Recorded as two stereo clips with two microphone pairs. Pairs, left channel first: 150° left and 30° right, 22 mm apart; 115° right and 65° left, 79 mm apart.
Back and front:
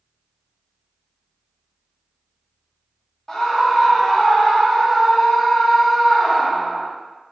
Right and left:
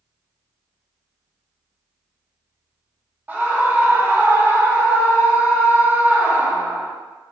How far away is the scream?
About 0.9 m.